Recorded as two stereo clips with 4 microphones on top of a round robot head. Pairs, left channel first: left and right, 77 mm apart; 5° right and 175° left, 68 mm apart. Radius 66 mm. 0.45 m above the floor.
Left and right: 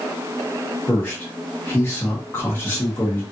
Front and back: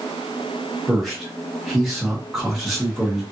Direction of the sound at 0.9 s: 85° left.